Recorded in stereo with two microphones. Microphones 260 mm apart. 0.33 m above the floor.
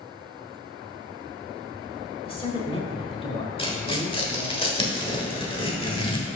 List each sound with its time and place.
2.2 s a woman speaking: 20° left (ahead or behind), 1.1 m
3.6 s tearing paper: 20° left (ahead or behind), 1.1 m